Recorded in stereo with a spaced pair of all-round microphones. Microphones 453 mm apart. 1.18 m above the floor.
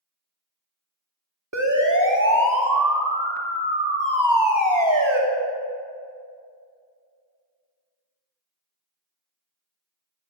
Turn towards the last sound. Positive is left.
turn(degrees=-85)